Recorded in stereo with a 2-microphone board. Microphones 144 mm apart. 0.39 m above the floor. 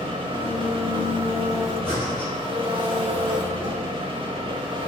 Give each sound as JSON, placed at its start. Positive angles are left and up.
{"t": 0.0, "sound": "an engine running", "side_deg": -40, "distance_m": 0.7}
{"t": 1.8, "sound": "breathing", "side_deg": -15, "distance_m": 1.8}